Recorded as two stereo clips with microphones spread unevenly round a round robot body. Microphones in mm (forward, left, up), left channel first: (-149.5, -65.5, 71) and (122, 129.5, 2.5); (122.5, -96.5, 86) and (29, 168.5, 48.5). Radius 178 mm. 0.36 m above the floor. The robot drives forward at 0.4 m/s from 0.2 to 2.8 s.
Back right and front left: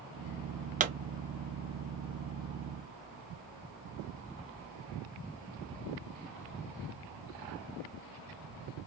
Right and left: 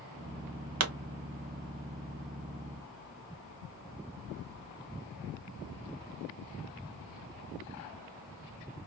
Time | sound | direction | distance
0.8 | a pop | 95° left | 0.9 m